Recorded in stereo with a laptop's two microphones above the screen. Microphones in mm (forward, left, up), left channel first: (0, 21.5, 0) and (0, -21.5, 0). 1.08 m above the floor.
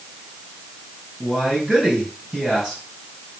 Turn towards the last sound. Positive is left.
turn(degrees=-15)  # may be behind; listen again after turning